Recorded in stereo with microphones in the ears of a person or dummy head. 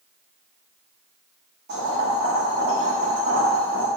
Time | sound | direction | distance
1.7 | boiling | 35° right (ahead or behind) | 0.9 m